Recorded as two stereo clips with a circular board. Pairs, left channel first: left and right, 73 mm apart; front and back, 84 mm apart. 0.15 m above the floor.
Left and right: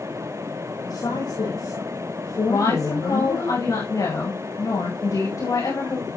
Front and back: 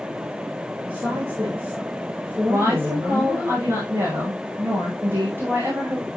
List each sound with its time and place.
0.8 s a woman speaking: 115° left, 10 m
2.5 s a woman speaking: 115° left, 9.5 m